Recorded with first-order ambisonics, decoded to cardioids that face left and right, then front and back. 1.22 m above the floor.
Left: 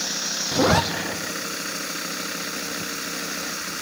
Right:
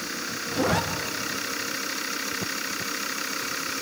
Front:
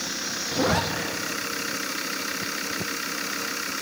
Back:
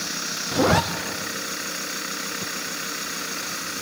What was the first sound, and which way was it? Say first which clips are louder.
A zipper: left 5 dB, back 4 dB; 130° left.